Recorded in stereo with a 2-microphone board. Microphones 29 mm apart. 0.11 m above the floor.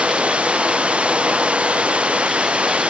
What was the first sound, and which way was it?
Running water, 40° right (ahead or behind).